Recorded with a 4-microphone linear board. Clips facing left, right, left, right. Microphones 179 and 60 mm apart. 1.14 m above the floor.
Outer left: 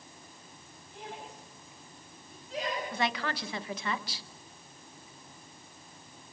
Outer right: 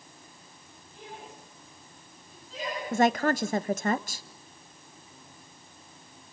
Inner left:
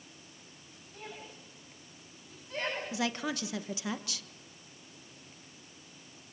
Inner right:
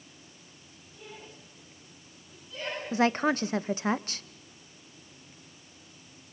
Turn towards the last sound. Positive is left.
turn(degrees=-45)  # may be behind; listen again after turning